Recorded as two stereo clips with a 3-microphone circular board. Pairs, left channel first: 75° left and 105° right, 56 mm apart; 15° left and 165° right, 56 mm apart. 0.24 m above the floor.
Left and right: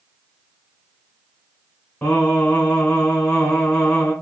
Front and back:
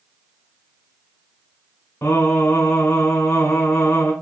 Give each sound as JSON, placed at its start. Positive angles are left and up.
{"t": 2.0, "sound": "singing", "azimuth_deg": 30, "distance_m": 2.0}